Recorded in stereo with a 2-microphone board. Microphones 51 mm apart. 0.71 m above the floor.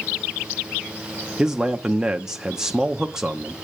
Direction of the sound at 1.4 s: 10° right (ahead or behind).